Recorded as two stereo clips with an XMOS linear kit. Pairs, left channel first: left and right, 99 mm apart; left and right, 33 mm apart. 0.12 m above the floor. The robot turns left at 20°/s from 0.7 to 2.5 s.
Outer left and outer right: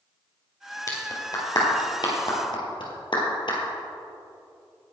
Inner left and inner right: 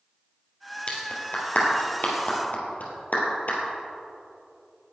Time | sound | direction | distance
0.9 | a clap | 35° left (ahead or behind) | 3 m